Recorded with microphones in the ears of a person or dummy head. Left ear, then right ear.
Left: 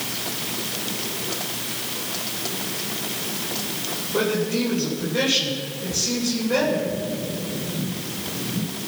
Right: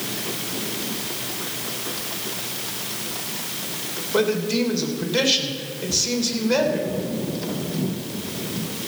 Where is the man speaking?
80° right, 3 m.